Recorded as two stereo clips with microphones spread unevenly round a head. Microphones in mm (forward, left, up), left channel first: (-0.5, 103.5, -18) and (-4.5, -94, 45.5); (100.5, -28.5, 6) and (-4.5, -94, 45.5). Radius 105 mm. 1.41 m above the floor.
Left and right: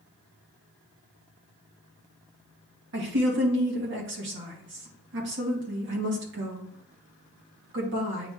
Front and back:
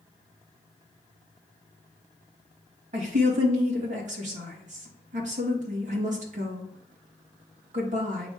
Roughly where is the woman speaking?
Behind right.